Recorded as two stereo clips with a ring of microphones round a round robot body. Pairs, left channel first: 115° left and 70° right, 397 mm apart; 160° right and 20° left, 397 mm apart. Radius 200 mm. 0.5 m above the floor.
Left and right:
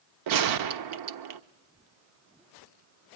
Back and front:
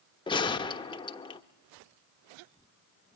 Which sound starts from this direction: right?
A gunshot, at 0.3 s.